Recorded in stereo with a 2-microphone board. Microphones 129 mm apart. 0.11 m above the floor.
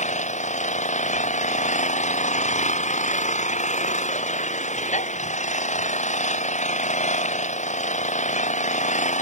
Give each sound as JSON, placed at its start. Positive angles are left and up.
{"t": 0.0, "sound": "an engine running", "side_deg": 65}